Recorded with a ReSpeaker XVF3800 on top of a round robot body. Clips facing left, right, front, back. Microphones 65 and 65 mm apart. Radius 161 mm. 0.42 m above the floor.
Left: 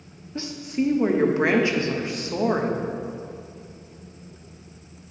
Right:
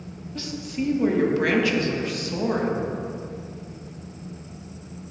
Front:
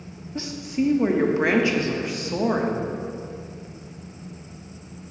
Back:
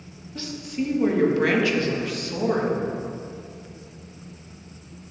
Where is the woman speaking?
45° left, 1.3 m.